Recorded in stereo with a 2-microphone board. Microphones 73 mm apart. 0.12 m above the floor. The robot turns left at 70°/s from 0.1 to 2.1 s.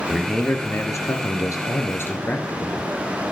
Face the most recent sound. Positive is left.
turn(degrees=40)